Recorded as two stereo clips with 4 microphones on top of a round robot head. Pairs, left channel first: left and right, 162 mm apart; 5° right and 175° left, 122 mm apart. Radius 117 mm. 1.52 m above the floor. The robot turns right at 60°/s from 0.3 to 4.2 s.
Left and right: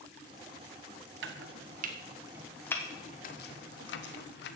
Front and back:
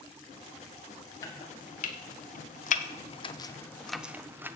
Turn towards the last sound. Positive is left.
turn(degrees=100)